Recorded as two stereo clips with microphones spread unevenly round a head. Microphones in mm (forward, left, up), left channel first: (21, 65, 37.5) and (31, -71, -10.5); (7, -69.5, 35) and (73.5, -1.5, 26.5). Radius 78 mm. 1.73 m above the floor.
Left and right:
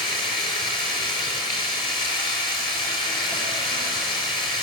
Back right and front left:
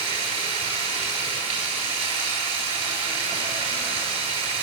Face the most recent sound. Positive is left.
turn(degrees=40)